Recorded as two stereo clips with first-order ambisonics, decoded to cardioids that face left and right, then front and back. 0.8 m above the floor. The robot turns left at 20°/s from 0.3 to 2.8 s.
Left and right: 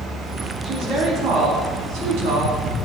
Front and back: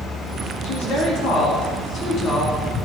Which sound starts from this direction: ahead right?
A woman speaking, at 0.6 s.